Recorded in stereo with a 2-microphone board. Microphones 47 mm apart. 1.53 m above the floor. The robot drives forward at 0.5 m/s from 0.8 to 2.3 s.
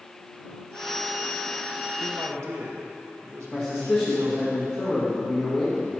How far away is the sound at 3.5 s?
About 2.5 m.